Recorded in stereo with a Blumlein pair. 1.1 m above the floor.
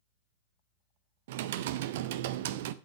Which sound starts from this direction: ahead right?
Typing on a keyboard, at 1.3 s.